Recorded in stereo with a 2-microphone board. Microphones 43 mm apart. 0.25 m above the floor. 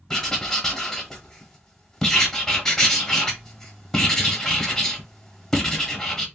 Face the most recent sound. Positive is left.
turn(degrees=10)  # may be behind; listen again after turning